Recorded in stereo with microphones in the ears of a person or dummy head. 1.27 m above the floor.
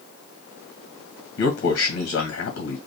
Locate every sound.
1.4 s a man speaking: 60° left (ahead or behind), 1.9 m